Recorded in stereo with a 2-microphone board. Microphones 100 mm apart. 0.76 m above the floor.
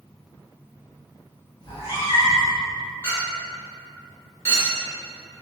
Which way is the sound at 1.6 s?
40° left (ahead or behind).